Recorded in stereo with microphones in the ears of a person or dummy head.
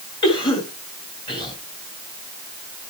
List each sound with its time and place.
0.2 s a cough: 25° left (ahead or behind), 3 m